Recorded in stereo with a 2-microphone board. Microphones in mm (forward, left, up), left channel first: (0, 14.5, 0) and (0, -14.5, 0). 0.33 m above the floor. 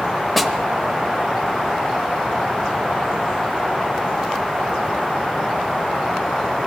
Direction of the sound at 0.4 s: Centre (ahead or behind).